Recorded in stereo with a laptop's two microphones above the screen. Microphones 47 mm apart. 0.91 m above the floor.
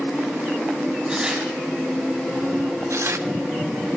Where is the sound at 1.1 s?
20° right (ahead or behind), 5 m.